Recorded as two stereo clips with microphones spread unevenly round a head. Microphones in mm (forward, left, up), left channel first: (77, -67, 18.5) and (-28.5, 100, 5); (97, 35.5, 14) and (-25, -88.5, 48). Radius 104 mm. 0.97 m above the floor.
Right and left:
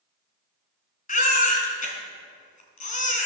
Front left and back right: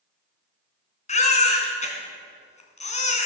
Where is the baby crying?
10° right, 3 m.